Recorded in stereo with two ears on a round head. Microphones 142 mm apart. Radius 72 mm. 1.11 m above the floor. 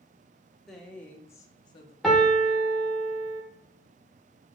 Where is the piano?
Centre (ahead or behind), 1.0 m.